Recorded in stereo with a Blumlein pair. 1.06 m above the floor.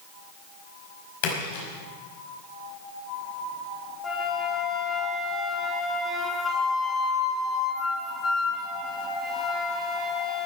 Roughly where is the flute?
Ahead.